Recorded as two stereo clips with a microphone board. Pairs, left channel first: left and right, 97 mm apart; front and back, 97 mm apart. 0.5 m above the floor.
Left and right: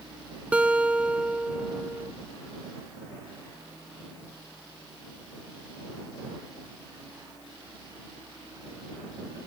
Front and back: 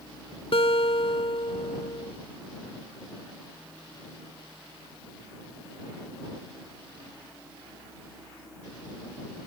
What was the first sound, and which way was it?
A guitar, 15° right.